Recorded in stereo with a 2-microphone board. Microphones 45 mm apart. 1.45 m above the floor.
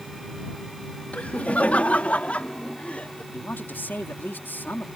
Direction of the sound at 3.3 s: 45° left (ahead or behind).